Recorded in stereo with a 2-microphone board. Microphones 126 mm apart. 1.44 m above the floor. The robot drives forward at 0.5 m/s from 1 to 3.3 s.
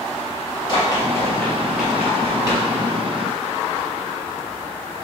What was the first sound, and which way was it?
Running footsteps, 40° left (ahead or behind).